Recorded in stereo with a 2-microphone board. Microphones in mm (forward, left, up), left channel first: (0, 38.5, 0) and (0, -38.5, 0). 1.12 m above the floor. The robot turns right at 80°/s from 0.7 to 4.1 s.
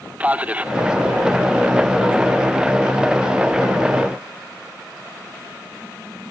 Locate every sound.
0.2 s a man speaking: 15° right (ahead or behind), 0.9 m; by 0.7 s 20° right (ahead or behind), 0.9 m